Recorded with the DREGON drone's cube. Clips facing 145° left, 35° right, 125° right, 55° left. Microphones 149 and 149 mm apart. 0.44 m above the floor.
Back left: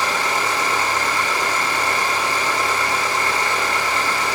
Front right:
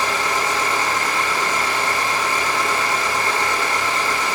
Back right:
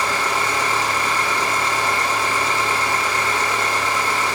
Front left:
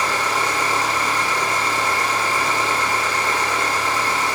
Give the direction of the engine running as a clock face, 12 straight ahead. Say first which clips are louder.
Even, even; 12 o'clock.